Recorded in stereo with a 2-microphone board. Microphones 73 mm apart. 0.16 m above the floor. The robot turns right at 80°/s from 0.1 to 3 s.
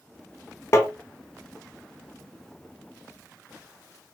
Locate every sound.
0.7 s tapping: 40° left (ahead or behind), 0.7 m; by 0.9 s 25° left (ahead or behind), 0.7 m